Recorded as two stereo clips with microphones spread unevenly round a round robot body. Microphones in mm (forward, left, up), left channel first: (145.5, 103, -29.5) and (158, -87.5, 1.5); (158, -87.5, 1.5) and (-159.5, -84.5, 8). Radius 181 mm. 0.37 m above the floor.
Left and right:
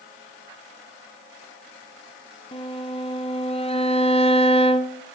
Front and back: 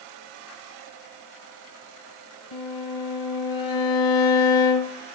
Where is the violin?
35° left, 1.2 m.